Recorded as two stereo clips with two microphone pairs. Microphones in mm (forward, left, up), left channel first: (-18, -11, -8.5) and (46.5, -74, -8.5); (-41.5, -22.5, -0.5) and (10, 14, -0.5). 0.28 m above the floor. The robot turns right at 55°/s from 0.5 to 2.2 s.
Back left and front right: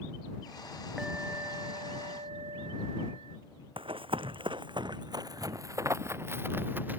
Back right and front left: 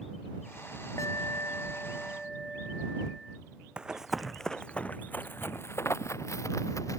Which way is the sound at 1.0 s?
125° right.